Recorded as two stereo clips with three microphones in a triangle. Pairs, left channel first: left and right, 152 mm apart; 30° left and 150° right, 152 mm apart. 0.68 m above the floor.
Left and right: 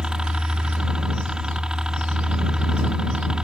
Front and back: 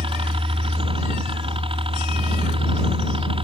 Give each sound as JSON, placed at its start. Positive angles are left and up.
{"t": 0.0, "sound": "a helicopter", "azimuth_deg": -170}